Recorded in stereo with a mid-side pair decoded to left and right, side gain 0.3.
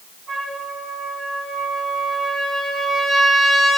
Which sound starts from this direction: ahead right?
A trumpet, at 0.3 s.